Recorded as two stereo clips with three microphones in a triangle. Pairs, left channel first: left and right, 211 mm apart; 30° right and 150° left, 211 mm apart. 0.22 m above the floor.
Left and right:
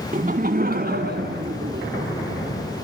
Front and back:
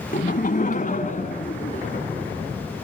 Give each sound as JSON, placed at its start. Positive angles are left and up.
{"t": 0.1, "sound": "laughter", "azimuth_deg": -55, "distance_m": 1.5}